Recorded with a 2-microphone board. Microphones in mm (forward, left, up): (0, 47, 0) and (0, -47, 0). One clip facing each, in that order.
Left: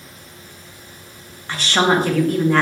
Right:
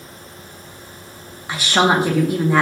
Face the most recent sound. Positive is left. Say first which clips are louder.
# right 1 dB
turn(degrees=-10)  # may be behind; listen again after turning